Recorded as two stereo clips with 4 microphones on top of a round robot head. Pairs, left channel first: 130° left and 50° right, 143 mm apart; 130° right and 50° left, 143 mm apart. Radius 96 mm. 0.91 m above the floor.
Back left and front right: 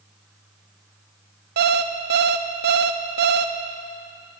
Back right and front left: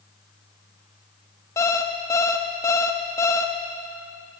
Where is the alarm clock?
55° right, 0.6 m.